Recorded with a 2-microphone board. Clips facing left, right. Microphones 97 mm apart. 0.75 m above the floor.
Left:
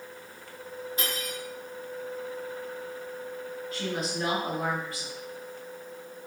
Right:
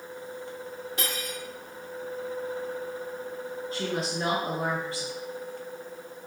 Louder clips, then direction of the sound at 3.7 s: Right 1 dB; 30° right (ahead or behind).